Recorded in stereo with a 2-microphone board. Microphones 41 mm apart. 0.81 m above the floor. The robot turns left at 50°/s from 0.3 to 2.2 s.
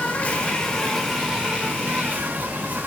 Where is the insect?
35° left, 1.2 m; by 2.9 s 60° right, 1.2 m.